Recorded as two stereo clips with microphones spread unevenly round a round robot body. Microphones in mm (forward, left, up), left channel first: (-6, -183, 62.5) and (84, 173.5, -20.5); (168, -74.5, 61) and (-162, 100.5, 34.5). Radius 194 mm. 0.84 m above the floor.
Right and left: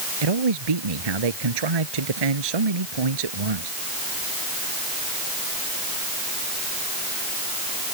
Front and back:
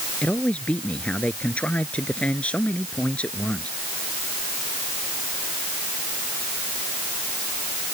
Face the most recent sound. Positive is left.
turn(degrees=60)